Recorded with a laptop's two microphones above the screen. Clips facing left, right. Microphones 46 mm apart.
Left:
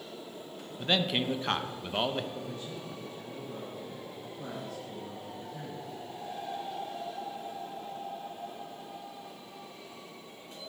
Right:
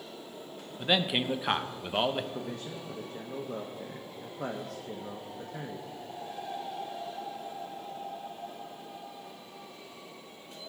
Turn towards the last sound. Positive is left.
turn(degrees=-70)  # may be behind; listen again after turning